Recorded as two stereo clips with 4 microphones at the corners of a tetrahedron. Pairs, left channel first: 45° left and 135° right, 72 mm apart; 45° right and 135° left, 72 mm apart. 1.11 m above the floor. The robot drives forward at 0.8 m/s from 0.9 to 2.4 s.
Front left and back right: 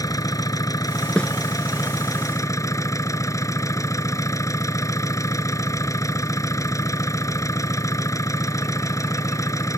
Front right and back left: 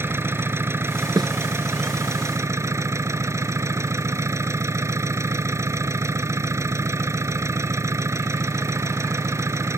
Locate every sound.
0.0 s an engine running: 80° left; by 9.8 s 85° left
1.2 s a snare drum: 120° left